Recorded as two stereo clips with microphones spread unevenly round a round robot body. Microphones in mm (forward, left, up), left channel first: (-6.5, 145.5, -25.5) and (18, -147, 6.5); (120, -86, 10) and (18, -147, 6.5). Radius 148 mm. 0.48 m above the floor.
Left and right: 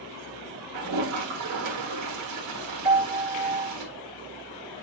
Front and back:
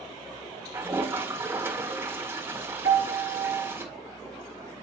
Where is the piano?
165° right, 1.1 m.